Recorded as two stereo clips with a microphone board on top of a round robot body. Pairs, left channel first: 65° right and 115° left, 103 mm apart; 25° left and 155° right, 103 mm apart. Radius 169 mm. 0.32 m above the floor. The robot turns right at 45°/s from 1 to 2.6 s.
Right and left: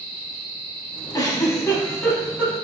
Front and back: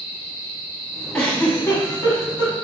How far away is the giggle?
About 1.8 m.